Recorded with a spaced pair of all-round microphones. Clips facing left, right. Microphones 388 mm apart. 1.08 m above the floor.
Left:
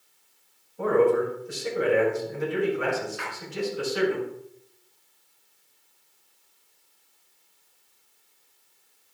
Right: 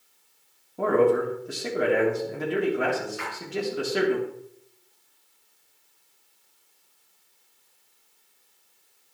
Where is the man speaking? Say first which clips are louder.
Even; 80° right, 3 m.